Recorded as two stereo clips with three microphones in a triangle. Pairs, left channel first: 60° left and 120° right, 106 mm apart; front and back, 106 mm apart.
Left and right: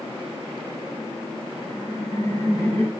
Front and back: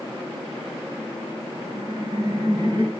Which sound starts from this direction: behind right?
Laughter, at 1.6 s.